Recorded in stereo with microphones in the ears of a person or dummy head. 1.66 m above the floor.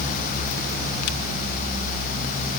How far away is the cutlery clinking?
I don't hear cutlery clinking.